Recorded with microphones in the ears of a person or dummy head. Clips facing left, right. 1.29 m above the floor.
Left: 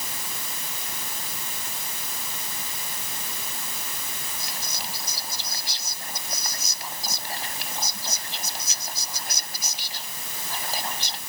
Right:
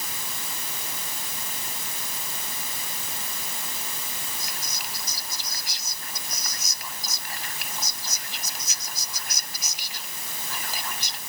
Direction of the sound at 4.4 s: 30° left (ahead or behind).